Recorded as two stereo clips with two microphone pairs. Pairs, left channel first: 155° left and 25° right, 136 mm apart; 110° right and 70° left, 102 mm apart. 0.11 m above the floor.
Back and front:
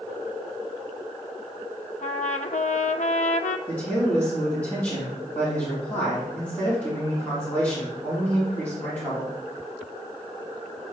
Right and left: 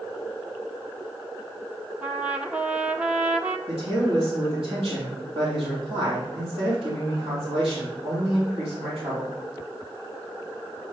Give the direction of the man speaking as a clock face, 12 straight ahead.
9 o'clock.